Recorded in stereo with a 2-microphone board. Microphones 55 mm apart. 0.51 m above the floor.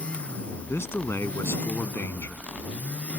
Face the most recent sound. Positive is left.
turn(degrees=50)  # may be behind; listen again after turning